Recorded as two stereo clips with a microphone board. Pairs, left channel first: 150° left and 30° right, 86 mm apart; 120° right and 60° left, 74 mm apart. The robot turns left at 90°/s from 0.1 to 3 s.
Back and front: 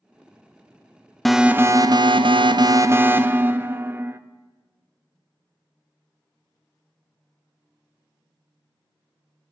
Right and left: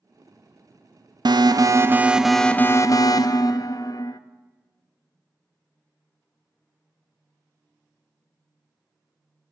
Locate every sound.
1.2 s an alarm: 65° left, 0.5 m; by 4.2 s 95° right, 0.5 m